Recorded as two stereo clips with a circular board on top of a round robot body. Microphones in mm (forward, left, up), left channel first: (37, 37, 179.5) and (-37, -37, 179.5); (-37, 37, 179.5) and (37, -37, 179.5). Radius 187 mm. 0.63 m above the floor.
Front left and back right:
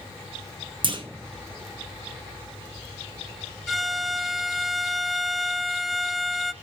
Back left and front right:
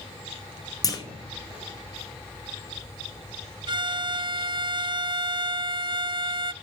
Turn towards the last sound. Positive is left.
turn(degrees=-45)